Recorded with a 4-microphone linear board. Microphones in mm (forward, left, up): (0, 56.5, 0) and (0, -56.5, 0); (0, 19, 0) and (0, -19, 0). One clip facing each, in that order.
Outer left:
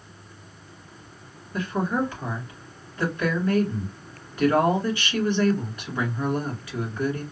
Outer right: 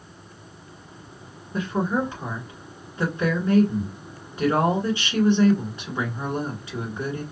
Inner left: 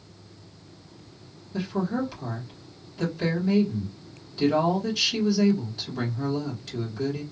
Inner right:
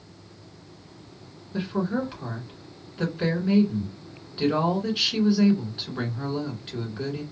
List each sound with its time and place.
1.5 s a woman speaking: 25° right (ahead or behind), 1.7 m